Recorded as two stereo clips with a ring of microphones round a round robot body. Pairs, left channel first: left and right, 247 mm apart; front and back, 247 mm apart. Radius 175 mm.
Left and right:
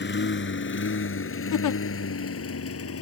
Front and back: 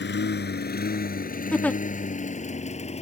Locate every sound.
0.0 s a lawn mower: 45° left; by 3.0 s 65° left
1.5 s a giggle: 85° left